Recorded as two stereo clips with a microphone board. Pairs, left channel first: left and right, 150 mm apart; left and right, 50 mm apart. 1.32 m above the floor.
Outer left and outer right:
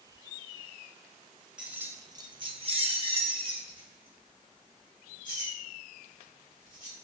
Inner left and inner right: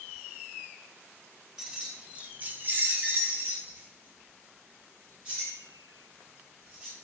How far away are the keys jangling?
About 0.7 m.